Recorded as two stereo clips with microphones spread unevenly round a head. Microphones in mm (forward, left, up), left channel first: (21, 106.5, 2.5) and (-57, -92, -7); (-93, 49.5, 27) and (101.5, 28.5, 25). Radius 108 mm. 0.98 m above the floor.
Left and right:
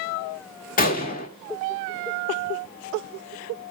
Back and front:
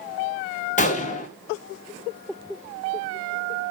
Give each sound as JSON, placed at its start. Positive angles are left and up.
{"t": 0.8, "sound": "a gunshot", "azimuth_deg": 120, "distance_m": 2.0}